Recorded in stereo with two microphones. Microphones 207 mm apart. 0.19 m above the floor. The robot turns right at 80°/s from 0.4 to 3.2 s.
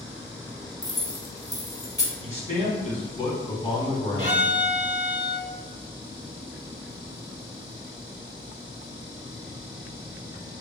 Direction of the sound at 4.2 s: 40° right (ahead or behind).